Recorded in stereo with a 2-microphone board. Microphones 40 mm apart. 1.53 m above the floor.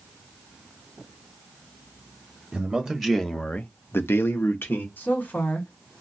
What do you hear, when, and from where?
2.5 s a man speaking: 15° right (ahead or behind), 1.0 m; by 4.9 s 70° left (ahead or behind), 1.2 m
5.0 s a woman speaking: 60° left (ahead or behind), 1.8 m